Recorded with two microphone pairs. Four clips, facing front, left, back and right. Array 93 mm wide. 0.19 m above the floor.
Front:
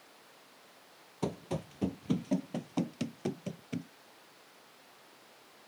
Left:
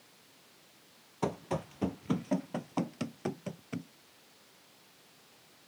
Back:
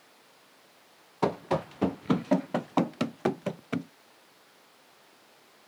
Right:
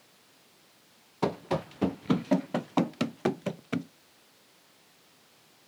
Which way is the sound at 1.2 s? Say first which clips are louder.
Right 5 dB, back 9 dB; 175° right.